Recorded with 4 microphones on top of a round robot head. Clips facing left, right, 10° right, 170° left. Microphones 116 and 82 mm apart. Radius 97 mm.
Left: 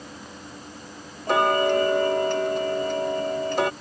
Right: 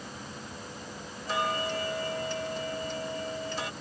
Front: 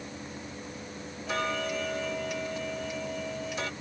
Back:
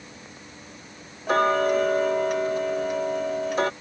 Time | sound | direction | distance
1.3 | ticking | 125° left | ?